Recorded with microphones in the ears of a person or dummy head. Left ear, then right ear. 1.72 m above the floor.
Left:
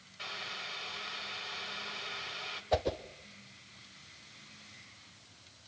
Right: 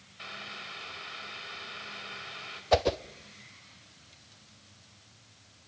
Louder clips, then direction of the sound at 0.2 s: Left 1 dB; 15° left (ahead or behind).